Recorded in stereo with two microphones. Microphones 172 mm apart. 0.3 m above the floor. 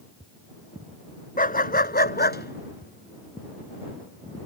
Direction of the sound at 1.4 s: 55° left (ahead or behind).